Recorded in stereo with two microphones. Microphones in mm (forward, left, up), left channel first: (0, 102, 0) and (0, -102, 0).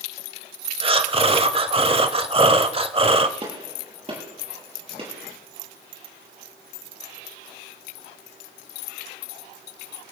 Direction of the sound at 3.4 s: 30° right (ahead or behind).